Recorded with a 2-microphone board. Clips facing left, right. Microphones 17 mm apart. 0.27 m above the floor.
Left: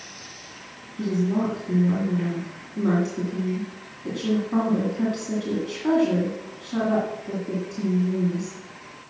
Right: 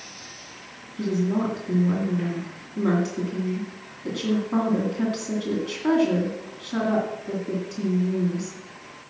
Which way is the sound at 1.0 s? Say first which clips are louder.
Even; 20° right (ahead or behind).